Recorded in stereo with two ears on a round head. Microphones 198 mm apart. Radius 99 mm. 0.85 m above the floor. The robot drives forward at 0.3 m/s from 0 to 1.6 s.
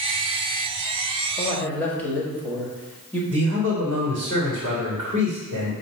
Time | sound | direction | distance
1.4 | a man speaking | 10° left (ahead or behind) | 1.4 m
3.3 | a man speaking | 55° right (ahead or behind) | 2.0 m